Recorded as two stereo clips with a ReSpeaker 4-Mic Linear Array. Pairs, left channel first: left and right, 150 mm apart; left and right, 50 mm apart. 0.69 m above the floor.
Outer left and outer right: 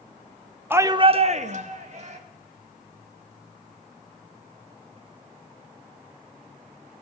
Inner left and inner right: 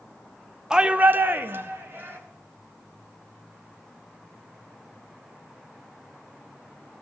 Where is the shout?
15° right (ahead or behind), 0.6 m; by 2.2 s 50° right (ahead or behind), 1.3 m.